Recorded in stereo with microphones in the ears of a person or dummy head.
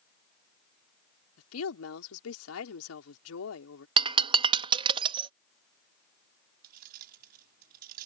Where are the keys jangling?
50° right (ahead or behind).